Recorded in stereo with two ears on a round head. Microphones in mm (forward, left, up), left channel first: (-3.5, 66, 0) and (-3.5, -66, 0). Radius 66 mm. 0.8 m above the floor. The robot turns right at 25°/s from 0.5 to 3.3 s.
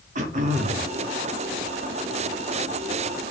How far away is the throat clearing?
About 1.6 m.